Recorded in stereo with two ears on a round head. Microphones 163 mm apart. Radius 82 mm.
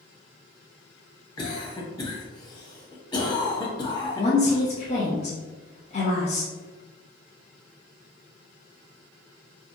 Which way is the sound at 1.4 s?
25° left (ahead or behind).